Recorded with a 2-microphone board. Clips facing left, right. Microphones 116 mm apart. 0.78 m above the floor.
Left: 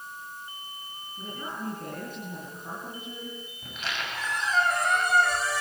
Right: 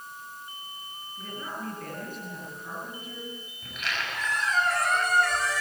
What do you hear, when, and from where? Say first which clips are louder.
1.2 s a woman speaking: left 1 dB; 25° left (ahead or behind), 9 m
3.6 s a squeak: right 1 dB; 30° left (ahead or behind), 8 m